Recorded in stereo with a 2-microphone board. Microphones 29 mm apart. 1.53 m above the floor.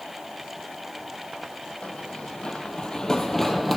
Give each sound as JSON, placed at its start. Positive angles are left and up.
{"t": 1.8, "sound": "running footsteps", "side_deg": 50, "distance_m": 2.5}